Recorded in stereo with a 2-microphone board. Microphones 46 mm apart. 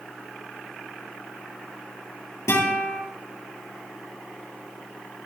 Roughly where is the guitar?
Left.